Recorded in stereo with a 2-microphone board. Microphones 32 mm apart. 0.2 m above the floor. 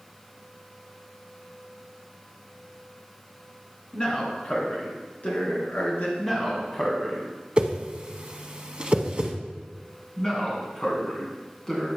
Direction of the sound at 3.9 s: 25° left (ahead or behind).